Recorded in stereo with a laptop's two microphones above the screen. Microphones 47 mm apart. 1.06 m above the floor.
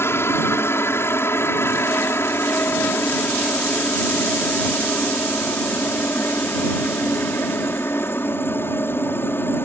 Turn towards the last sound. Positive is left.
turn(degrees=55)  # may be behind; listen again after turning